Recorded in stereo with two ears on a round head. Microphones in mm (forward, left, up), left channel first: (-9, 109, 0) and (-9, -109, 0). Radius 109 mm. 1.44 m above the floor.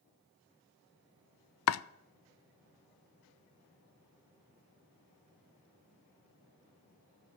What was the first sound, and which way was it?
Chopping, 70° left (ahead or behind).